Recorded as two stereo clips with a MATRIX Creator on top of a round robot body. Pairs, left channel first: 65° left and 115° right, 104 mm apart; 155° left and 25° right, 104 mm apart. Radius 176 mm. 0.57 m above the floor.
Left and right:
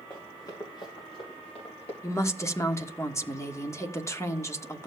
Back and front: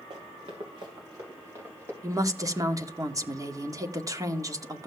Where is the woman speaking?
15° left, 1.4 m.